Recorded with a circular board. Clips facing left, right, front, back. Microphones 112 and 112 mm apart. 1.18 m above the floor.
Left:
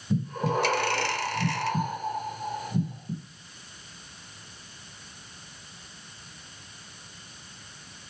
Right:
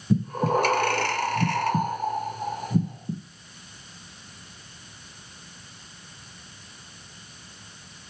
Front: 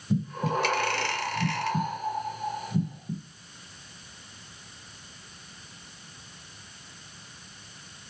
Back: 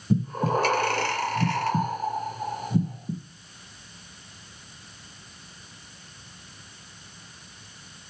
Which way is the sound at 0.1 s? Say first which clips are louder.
Right 4 dB, back 4 dB; 130° right.